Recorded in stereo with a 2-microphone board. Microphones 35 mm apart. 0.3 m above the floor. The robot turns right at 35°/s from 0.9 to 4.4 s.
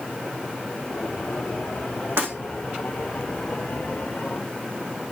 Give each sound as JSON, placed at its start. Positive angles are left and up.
{"t": 2.2, "sound": "breaking glass", "side_deg": -75, "distance_m": 5.5}